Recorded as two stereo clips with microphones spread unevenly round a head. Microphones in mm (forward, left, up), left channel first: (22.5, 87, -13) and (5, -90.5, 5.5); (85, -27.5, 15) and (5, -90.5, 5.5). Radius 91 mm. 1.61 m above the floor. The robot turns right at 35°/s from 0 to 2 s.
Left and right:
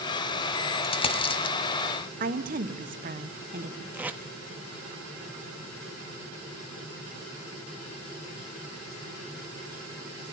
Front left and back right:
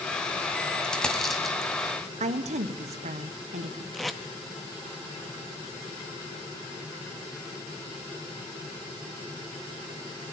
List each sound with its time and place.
0.8 s a dropped coin: 95° left, 1.5 m; by 1.6 s 120° left, 1.5 m
2.2 s a woman speaking: 145° right, 1.3 m
3.9 s tape being pulled: 40° right, 1.0 m